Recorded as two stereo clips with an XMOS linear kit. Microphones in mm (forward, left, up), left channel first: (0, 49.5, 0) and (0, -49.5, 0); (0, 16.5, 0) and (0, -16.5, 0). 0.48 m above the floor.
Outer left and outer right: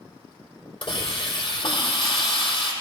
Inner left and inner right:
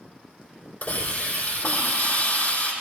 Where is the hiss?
55° left (ahead or behind), 4.5 m.